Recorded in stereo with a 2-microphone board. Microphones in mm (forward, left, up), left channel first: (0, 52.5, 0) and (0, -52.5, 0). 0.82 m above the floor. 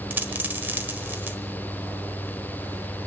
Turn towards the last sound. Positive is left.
turn(degrees=-20)  # may be behind; listen again after turning